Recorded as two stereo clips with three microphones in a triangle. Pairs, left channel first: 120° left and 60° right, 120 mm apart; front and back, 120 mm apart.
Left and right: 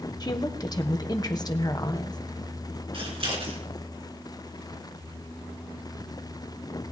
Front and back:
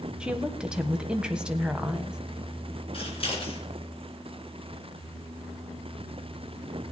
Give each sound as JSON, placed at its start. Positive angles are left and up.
{"t": 0.2, "sound": "a woman speaking", "azimuth_deg": 105, "distance_m": 1.2}
{"t": 2.9, "sound": "scissors", "azimuth_deg": -25, "distance_m": 3.5}